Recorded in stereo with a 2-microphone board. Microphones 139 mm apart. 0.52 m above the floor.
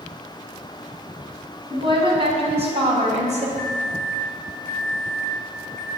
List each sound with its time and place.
1.7 s a woman speaking: 40° right (ahead or behind), 4.5 m; by 3.5 s 60° right (ahead or behind), 3 m
3.6 s a microwave: centre (ahead or behind), 3 m